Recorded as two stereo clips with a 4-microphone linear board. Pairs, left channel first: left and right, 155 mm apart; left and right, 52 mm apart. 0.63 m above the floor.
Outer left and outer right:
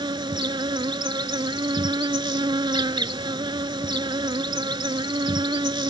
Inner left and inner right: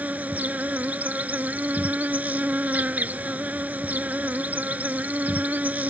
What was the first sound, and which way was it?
An insect, 30° right (ahead or behind).